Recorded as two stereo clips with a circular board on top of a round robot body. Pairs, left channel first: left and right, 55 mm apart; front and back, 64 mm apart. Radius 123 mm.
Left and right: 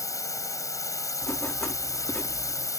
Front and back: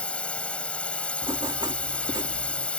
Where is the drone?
70° left.